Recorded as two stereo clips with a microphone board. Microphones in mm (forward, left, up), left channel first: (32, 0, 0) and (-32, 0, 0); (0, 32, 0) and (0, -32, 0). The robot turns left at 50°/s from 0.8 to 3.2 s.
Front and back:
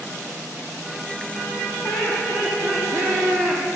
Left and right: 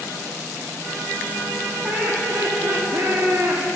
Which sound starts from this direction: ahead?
Laughter, at 1.8 s.